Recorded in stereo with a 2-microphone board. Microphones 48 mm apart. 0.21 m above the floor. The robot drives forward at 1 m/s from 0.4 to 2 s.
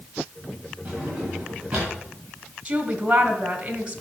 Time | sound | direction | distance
0.8 | a drawer | 25° right (ahead or behind) | 7 m
2.6 | a woman speaking | 20° right (ahead or behind) | 1.9 m